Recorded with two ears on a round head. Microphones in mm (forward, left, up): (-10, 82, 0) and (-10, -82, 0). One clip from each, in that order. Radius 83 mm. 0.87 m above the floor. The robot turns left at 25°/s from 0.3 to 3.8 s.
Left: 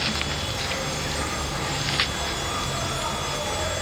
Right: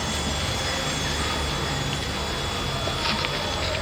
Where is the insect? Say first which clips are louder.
Left 1 dB; 175° right, 2.5 m; by 3.8 s 100° left, 2.5 m.